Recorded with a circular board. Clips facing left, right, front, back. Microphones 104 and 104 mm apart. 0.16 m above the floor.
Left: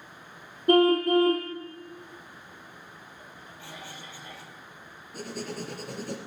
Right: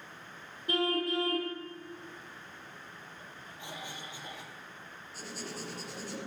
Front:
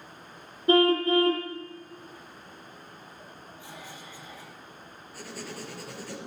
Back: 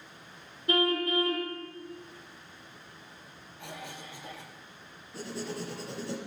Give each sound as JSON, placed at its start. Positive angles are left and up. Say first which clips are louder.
{"t": 0.7, "sound": "a car horn", "louder": "left 11 dB, front 7 dB", "azimuth_deg": 55, "distance_m": 3.0}
{"t": 3.6, "sound": "a cough", "louder": "right 1 dB, back 4 dB", "azimuth_deg": -160, "distance_m": 5.0}
{"t": 5.1, "sound": "writing", "louder": "left 7 dB, back 4 dB", "azimuth_deg": 115, "distance_m": 4.0}